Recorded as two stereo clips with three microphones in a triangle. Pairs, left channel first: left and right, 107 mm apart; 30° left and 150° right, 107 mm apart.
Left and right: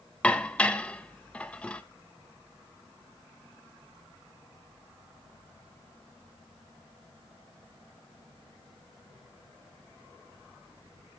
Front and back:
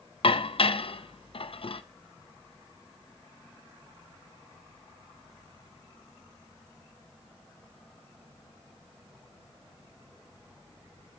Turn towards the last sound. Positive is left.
turn(degrees=15)